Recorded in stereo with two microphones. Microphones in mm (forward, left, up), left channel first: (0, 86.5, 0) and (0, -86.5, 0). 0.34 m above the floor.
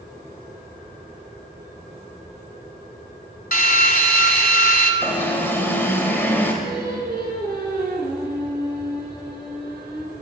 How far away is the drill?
About 1.0 m.